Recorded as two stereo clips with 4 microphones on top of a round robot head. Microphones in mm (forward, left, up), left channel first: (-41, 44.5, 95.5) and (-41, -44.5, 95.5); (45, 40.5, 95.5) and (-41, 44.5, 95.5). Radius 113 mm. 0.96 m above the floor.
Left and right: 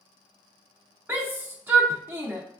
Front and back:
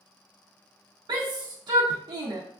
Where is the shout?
160° right, 0.5 m.